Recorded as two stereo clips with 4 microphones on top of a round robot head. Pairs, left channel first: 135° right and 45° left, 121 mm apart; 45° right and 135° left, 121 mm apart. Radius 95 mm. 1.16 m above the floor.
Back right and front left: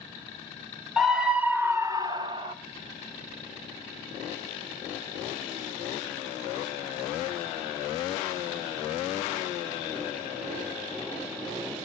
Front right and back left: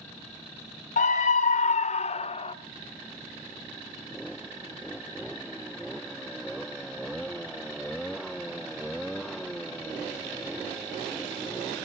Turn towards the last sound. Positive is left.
turn(degrees=-5)